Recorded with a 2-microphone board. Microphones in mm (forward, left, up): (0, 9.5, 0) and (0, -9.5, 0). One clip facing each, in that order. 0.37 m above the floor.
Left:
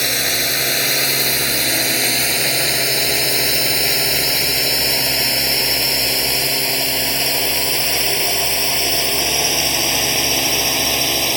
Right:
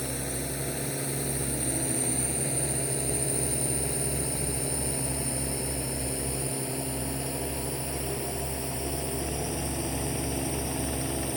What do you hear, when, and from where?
0.0 s a drone: 80° left; by 11.4 s 75° left (ahead or behind)